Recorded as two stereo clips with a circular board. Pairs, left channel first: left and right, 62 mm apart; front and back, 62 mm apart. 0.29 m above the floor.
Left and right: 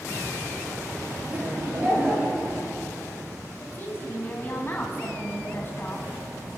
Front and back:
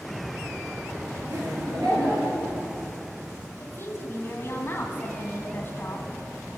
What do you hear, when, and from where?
1.3 s laughter: 145° right, 6 m; by 2.6 s 155° right, 6 m
3.6 s a woman speaking: 45° left, 2 m